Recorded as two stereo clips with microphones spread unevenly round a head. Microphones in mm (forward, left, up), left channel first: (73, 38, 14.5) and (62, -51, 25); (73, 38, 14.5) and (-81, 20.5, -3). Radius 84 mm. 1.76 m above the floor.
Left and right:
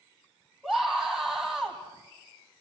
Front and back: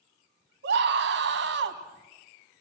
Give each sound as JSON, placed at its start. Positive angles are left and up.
{"t": 0.6, "sound": "a scream", "azimuth_deg": 170, "distance_m": 2.0}